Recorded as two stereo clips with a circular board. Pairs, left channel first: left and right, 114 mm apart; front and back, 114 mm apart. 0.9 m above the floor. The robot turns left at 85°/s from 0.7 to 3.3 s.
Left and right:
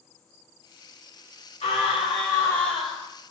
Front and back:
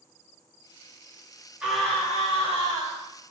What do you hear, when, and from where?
1.6 s a scream: 100° left, 1.8 m; by 3.1 s 25° right, 1.8 m